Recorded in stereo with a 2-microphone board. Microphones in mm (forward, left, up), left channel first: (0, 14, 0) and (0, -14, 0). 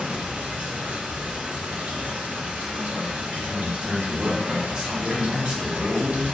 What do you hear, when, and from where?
0.0 s running water: 80° right, 1.3 m
3.4 s a man speaking: 35° right (ahead or behind), 1.0 m